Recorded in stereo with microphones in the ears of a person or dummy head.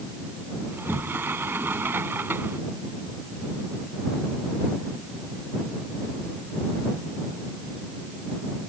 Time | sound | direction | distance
0.7 | a sliding door | 10° right (ahead or behind) | ?